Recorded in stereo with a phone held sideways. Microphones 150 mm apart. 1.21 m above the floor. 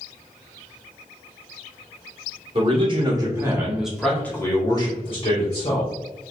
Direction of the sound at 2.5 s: 40° right (ahead or behind).